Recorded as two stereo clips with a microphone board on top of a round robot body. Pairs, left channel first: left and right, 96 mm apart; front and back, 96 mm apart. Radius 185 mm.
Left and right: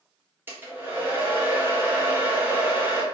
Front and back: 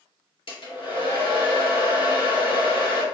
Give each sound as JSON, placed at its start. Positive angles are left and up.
{"t": 0.5, "sound": "a hair dryer", "azimuth_deg": -20, "distance_m": 3.0}